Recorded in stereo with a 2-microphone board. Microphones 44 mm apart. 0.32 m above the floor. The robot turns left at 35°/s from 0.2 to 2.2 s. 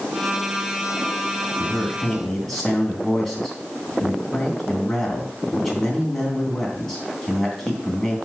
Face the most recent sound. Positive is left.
turn(degrees=5)  # may be behind; listen again after turning